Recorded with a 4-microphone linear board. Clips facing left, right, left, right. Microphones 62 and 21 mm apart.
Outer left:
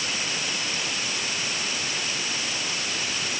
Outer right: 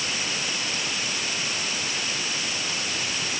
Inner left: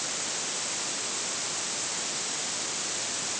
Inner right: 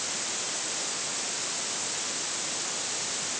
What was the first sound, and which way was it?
Only background noise.